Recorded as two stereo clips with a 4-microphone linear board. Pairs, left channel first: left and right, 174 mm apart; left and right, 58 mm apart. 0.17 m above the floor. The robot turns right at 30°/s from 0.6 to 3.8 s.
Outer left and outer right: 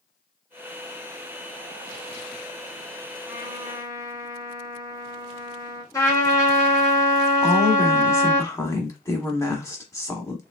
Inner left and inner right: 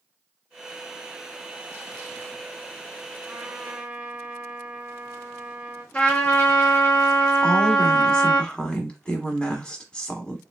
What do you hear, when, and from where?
3.3 s a trumpet: 25° right (ahead or behind), 1.3 m; by 5.8 s 20° right (ahead or behind), 1.3 m
5.9 s a trumpet: 20° left (ahead or behind), 1.4 m
7.4 s a woman speaking: 20° left (ahead or behind), 1.0 m